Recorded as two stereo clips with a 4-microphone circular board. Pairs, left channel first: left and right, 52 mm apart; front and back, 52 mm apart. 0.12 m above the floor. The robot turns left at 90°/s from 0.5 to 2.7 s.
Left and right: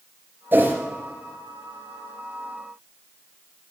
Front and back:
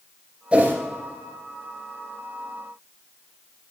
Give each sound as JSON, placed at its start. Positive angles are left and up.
{"t": 0.5, "sound": "a whoosh", "azimuth_deg": -120, "distance_m": 2.5}